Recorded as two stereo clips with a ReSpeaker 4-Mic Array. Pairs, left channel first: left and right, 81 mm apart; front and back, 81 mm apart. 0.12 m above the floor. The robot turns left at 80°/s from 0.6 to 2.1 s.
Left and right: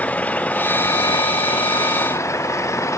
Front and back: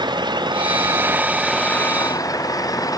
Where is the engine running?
160° left; by 3.0 s 40° left.